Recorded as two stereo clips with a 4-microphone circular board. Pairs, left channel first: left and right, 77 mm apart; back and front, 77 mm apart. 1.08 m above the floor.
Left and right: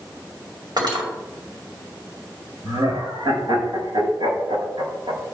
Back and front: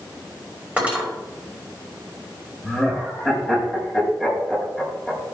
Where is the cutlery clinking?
70° right, 3 m.